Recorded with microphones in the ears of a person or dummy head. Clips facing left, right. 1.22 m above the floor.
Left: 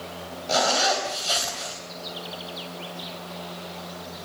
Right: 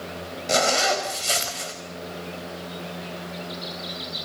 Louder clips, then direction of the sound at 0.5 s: Right 1 dB; 35° right (ahead or behind).